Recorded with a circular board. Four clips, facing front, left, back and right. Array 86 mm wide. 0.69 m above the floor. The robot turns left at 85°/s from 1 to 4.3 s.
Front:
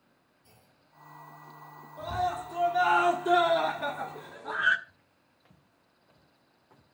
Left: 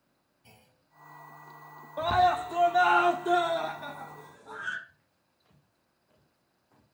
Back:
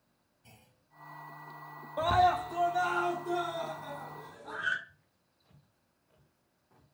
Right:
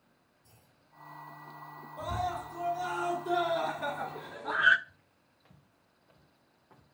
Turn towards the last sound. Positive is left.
turn(degrees=-50)